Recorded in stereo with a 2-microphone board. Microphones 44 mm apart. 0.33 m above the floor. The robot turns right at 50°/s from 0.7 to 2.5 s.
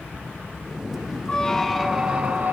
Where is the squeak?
155° left, 1.0 m; by 2.5 s 145° right, 1.0 m.